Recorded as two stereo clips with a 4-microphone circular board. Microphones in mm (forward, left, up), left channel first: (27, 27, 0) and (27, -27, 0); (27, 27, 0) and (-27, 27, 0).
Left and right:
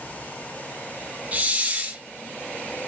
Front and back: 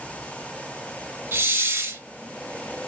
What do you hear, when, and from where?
1.3 s a hiss: 145° right, 0.5 m